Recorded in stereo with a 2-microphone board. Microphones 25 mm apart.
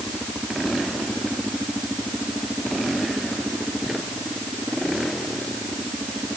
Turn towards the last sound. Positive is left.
No sound to turn to.